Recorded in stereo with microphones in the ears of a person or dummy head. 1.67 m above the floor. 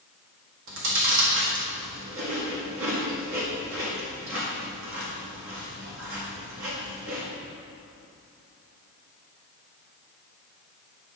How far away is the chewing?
About 1.8 m.